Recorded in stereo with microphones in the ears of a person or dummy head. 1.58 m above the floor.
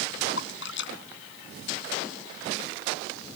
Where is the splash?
75° left (ahead or behind).